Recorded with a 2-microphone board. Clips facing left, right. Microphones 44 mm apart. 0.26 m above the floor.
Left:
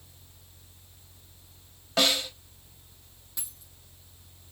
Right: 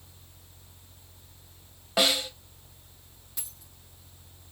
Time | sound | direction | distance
2.0 | a snare drum | 10° right (ahead or behind) | 0.8 m
3.4 | a dropped coin | 5° right (ahead or behind) | 3 m